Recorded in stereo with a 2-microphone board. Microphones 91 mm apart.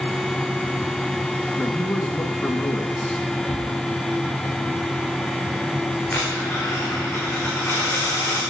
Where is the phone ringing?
No phone ringing in this recording.